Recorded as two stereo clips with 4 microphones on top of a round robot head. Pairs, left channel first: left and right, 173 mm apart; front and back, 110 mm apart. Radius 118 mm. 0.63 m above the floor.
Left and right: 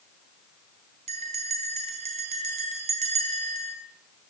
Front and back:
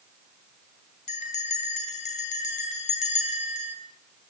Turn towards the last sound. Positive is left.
turn(degrees=-30)